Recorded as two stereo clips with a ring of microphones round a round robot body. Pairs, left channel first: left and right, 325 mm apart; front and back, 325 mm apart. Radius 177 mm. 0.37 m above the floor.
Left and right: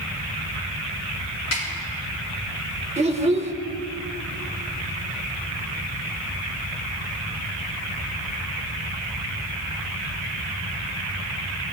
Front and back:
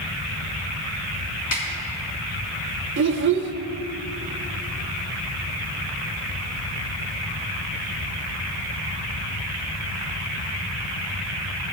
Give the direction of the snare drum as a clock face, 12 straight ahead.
11 o'clock.